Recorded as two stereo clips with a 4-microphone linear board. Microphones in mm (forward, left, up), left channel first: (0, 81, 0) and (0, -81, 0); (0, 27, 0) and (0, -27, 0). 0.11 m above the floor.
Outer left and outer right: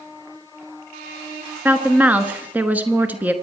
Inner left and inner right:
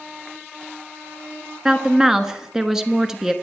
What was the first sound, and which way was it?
A woman speaking, 10° right (ahead or behind).